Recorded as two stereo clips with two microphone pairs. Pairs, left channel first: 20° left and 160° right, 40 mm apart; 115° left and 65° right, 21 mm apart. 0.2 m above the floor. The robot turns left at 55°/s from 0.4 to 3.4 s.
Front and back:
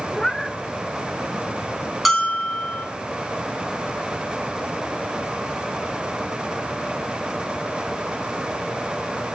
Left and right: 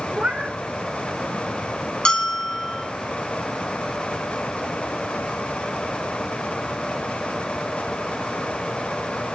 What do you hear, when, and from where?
0.1 s a cat meowing: 60° right, 0.6 m; by 0.6 s 70° right, 0.6 m
2.0 s a bell: 105° left, 1.2 m; by 2.9 s 65° left, 1.2 m